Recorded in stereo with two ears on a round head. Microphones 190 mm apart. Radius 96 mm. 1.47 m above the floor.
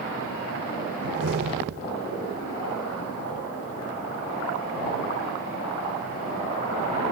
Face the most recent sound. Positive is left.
turn(degrees=-60)  # may be behind; listen again after turning